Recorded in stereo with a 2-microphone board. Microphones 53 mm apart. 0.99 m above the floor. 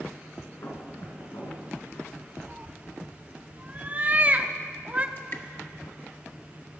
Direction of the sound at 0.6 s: 65° left (ahead or behind).